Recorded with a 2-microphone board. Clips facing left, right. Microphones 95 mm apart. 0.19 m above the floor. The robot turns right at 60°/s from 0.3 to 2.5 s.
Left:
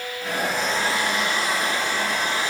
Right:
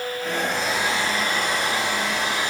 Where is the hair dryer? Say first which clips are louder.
Left 2 dB; 170° left, 6.5 m; by 2.5 s 65° right, 6.5 m.